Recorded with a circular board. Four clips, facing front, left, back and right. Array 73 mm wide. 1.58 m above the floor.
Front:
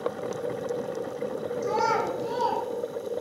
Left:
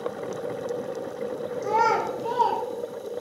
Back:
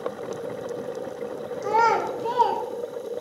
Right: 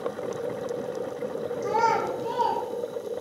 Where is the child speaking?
170° left, 2 m.